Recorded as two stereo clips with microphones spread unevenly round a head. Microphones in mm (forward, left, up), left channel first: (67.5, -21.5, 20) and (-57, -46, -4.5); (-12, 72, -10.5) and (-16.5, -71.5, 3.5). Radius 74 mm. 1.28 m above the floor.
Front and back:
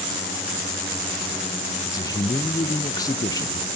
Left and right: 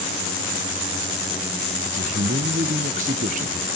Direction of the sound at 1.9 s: 55° right.